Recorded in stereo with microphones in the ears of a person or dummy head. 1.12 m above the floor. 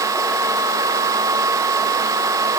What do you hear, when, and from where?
Only background noise.